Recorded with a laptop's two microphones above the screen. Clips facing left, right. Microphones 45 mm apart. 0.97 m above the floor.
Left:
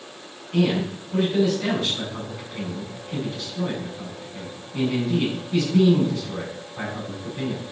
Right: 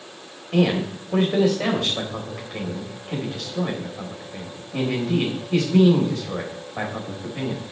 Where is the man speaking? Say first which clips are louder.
Right 2 dB; 80° right, 3.5 m.